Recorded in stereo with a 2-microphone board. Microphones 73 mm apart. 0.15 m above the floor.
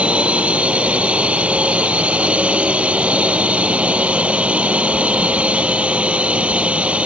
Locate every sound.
0.0 s a drone: 15° right (ahead or behind)